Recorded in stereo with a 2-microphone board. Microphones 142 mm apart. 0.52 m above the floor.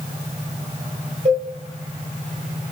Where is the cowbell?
65° right (ahead or behind), 1.1 m.